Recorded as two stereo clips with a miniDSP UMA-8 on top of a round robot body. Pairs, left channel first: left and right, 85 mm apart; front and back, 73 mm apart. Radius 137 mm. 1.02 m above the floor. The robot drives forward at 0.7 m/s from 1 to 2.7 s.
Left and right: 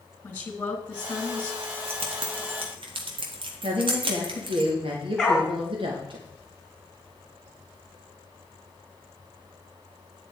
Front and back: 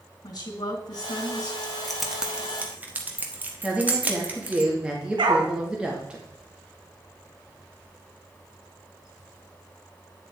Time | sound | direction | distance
0.2 | a woman speaking | 20° left | 3 m
1.6 | keys jangling | 80° right | 1.4 m
3.6 | a woman speaking | 105° right | 2 m
5.2 | a dog barking | straight behind | 2.5 m